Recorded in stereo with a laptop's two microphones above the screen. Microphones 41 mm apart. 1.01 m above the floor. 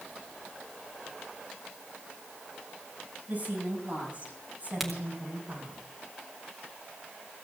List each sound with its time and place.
3.3 s a woman speaking: 45° right (ahead or behind), 8 m; by 5.8 s 40° right (ahead or behind), 6.5 m
4.8 s a crack: centre (ahead or behind), 1.5 m